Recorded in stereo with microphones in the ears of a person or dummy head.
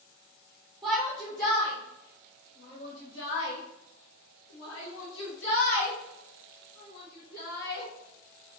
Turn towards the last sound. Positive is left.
turn(degrees=55)  # may be behind; listen again after turning